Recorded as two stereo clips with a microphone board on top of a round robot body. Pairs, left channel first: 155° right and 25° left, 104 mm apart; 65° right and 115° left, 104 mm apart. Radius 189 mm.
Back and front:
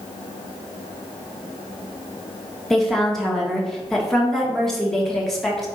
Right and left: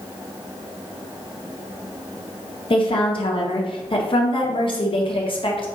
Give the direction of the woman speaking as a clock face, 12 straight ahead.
2 o'clock.